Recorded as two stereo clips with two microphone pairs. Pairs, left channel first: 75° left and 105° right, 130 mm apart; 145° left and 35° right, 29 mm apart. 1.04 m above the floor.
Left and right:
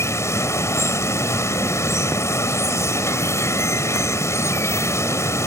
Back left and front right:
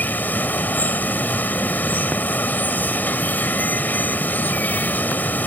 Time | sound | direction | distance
0.0 | running water | 145° left | ?